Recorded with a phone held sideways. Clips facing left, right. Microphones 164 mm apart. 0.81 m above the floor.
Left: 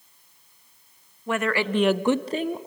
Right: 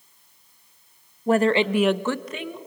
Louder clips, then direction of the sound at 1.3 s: Right 6 dB; 40° right (ahead or behind).